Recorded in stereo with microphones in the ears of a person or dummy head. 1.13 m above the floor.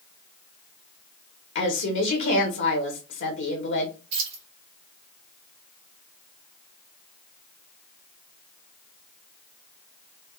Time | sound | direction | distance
1.6 | a woman speaking | 60° left (ahead or behind) | 1.1 m
4.1 | keys jangling | 70° right (ahead or behind) | 1.8 m